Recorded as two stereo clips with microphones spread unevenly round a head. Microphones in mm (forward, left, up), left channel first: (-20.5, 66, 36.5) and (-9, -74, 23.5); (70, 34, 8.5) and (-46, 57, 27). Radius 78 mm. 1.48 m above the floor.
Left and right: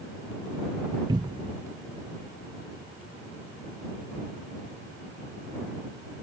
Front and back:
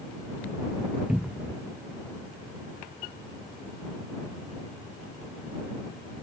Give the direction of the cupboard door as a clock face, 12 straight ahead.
5 o'clock.